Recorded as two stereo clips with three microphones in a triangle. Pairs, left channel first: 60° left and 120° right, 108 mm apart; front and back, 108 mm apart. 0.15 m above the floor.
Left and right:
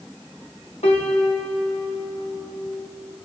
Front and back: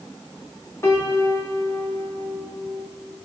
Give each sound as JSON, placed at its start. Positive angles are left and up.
{"t": 0.8, "sound": "a piano", "azimuth_deg": 65, "distance_m": 3.0}